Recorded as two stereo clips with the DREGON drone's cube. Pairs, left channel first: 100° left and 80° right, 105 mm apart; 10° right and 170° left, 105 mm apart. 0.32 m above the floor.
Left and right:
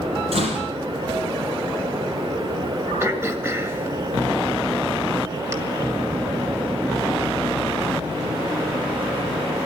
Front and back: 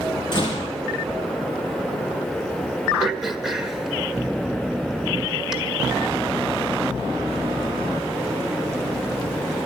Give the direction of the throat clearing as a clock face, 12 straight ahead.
4 o'clock.